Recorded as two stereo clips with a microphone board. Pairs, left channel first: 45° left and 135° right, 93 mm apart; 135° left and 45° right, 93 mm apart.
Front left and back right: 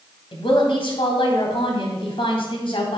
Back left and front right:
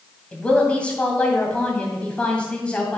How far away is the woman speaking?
About 2.5 m.